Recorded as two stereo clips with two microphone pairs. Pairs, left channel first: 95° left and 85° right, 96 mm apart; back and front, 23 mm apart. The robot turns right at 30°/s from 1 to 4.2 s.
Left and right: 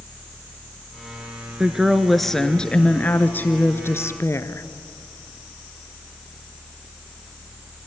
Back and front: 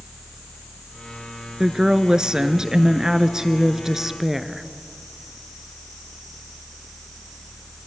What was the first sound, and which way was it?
A woman speaking, 10° right.